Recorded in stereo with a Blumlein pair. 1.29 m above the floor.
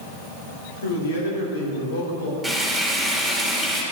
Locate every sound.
0.8 s a man speaking: 65° left, 3.5 m
2.4 s frying: straight ahead, 3 m